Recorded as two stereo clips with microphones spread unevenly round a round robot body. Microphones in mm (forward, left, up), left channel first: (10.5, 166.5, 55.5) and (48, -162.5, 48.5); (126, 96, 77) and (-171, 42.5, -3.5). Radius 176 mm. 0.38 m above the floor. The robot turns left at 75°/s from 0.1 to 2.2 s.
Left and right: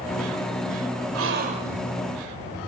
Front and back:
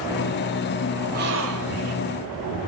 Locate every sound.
1.1 s a gasp: 120° right, 1.1 m; by 1.9 s 175° left, 1.1 m